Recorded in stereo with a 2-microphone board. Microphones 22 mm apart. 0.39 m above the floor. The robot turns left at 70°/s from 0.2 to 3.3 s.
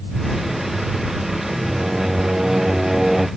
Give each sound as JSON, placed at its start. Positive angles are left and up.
{"t": 1.7, "sound": "singing", "azimuth_deg": -65}